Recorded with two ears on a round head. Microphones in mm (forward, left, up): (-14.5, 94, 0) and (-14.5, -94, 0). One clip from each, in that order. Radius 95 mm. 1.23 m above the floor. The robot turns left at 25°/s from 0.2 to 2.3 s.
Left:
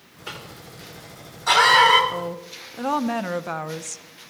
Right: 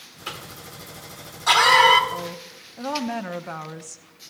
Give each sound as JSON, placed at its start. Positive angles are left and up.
{"t": 0.3, "sound": "a cough", "side_deg": -65, "distance_m": 2.5}
{"t": 2.1, "sound": "a woman speaking", "side_deg": 5, "distance_m": 0.6}